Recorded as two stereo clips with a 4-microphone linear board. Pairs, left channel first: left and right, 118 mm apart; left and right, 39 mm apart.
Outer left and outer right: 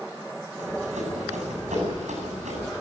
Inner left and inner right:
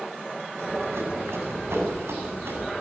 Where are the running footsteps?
75° right (ahead or behind), 8 m; by 2.7 s 70° right (ahead or behind), 10.5 m.